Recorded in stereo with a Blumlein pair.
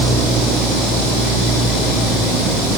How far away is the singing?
No singing in this recording.